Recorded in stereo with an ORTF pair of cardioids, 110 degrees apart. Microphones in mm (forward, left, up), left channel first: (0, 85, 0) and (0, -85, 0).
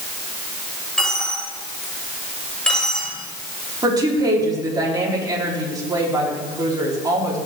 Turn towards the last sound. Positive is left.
turn(degrees=-20)